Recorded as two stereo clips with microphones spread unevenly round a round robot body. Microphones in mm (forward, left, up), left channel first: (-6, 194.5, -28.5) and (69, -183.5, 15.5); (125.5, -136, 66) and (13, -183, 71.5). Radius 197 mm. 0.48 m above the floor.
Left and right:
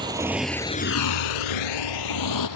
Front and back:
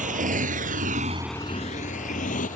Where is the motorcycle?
160° right; by 2.6 s 60° left.